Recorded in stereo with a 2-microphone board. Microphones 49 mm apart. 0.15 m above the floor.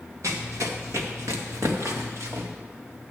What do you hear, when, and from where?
0.2 s running footsteps: 80° right, 2.5 m; by 2.5 s 75° right (ahead or behind), 3 m